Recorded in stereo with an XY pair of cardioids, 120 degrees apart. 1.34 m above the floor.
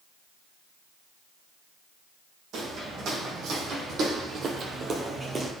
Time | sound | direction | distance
2.5 | footsteps | 65° right | 4.5 m